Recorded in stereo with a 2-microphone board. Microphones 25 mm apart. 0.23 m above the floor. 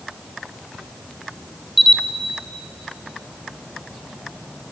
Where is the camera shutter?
10° left (ahead or behind), 0.5 m.